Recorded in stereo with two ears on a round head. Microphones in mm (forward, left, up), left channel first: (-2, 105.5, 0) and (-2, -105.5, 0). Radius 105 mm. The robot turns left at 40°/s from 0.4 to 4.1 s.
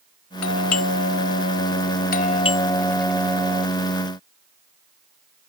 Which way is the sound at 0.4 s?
70° left (ahead or behind).